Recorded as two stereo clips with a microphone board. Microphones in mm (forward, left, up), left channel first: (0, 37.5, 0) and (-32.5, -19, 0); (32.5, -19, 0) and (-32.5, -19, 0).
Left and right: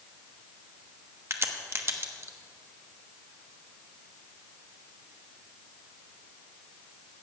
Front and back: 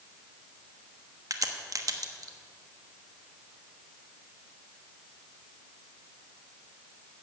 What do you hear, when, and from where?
1.3 s a crack: 165° right, 1.1 m